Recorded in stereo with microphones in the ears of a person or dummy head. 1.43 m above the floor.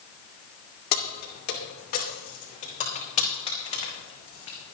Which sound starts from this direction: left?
Keys jangling, at 0.9 s.